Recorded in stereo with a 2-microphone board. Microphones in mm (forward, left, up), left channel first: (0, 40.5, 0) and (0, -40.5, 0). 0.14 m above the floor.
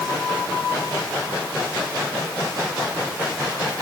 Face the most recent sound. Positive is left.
No sound to turn to.